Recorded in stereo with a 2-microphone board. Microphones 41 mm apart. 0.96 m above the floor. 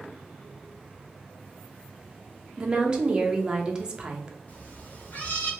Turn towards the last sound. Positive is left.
turn(degrees=40)  # may be behind; listen again after turning